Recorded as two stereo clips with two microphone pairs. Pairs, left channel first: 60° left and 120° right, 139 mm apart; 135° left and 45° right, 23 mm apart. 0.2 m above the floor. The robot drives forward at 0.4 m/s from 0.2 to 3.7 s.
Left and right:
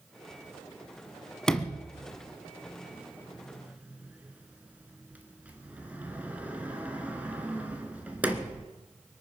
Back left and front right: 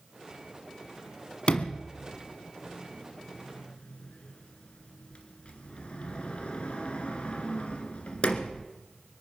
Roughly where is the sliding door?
Behind left.